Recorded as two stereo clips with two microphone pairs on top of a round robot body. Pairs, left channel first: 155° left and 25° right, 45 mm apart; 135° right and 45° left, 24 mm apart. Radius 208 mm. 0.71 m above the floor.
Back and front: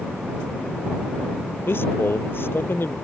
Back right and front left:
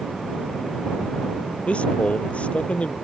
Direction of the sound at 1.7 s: 170° right.